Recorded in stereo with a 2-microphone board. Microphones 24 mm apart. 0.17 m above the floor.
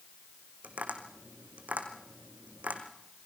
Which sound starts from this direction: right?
Tapping, at 0.6 s.